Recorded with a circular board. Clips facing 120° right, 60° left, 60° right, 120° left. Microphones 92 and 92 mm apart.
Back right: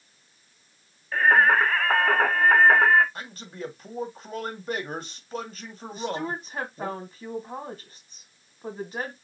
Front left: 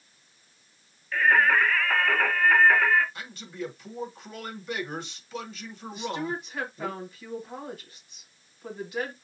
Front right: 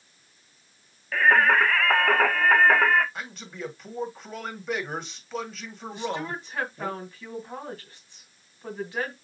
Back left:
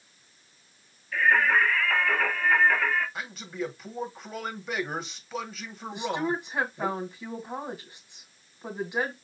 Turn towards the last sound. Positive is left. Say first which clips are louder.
# back right 1 dB, back left 3 dB
turn(degrees=-170)